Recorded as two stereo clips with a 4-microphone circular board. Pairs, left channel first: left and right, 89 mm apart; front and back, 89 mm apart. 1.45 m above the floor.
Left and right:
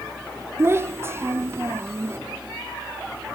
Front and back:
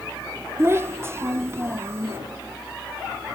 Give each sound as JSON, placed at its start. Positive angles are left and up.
{"t": 0.6, "sound": "a child speaking", "azimuth_deg": -135, "distance_m": 0.5}